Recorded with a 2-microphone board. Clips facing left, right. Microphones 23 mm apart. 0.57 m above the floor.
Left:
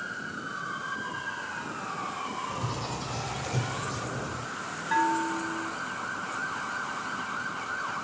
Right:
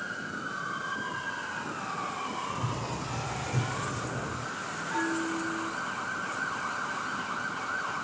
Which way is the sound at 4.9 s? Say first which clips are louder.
Left 5 dB; 60° left (ahead or behind).